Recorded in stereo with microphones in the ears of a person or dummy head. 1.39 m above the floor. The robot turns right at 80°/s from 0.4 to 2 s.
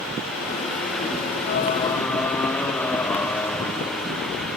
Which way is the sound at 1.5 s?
130° left.